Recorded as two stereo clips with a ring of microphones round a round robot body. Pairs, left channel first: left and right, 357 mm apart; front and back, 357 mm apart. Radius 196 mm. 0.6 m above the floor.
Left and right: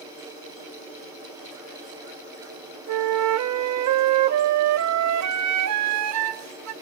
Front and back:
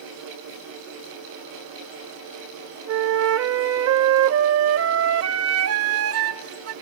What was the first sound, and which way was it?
A flute, 130° right.